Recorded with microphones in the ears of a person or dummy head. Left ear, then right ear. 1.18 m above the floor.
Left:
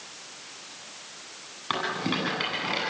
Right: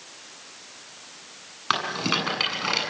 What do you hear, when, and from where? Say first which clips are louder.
1.7 s a rattle: right 4 dB; 40° right (ahead or behind), 9 m